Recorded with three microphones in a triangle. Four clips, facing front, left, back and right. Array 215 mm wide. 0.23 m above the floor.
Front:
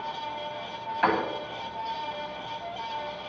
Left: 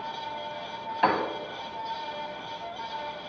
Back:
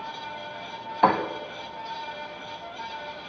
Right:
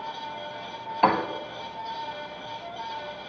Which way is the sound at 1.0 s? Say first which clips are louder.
Right 3 dB, back 4 dB; 155° right.